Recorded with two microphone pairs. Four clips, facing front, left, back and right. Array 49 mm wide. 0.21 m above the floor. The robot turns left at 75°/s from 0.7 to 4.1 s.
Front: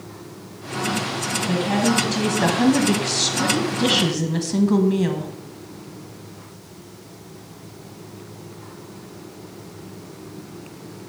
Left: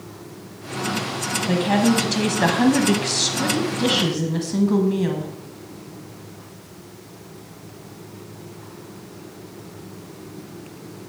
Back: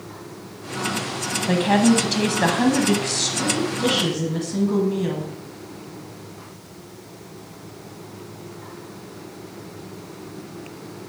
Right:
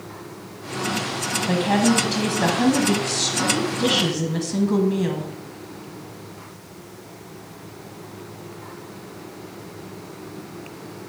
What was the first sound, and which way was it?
A woman speaking, 170° right.